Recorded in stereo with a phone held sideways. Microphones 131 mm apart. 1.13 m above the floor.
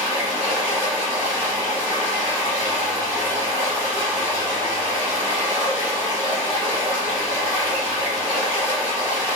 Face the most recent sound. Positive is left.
turn(degrees=-25)  # may be behind; listen again after turning